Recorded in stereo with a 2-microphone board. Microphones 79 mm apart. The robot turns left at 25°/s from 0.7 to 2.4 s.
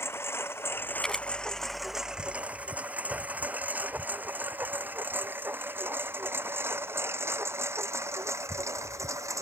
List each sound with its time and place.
0.0 s a lawn mower: 30° left (ahead or behind); by 9.4 s 40° right (ahead or behind)
1.0 s a camera shutter: 10° left (ahead or behind); by 1.3 s 5° left (ahead or behind)